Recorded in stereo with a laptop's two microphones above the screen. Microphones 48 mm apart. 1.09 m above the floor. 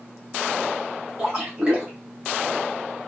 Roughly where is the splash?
Right.